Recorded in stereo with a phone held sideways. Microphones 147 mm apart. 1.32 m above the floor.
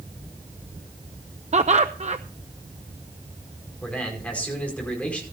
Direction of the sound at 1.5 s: 50° right (ahead or behind).